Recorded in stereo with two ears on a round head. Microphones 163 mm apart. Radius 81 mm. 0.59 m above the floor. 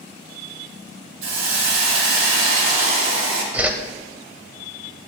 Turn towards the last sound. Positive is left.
turn(degrees=-10)  # may be behind; listen again after turning